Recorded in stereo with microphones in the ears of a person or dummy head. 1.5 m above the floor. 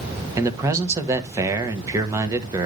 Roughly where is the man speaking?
Centre.